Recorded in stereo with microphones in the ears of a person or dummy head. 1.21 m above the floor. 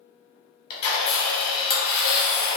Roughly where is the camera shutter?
Left.